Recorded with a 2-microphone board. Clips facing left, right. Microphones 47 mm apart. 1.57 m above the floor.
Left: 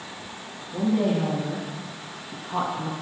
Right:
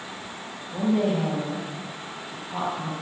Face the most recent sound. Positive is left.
turn(degrees=15)  # may be behind; listen again after turning